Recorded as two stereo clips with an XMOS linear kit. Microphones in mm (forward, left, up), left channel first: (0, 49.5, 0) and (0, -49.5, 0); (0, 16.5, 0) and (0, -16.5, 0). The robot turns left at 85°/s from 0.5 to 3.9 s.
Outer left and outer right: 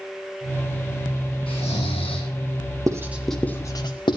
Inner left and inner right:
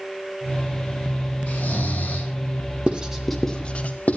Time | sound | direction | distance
1.5 | snoring | 115° left | 9 m
2.9 | writing | 35° right (ahead or behind) | 2 m